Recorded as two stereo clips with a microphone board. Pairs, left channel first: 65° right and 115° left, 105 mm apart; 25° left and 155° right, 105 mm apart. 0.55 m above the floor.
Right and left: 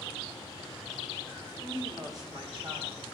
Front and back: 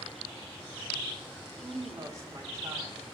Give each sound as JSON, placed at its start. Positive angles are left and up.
{"t": 1.6, "sound": "a woman speaking", "azimuth_deg": 175, "distance_m": 1.2}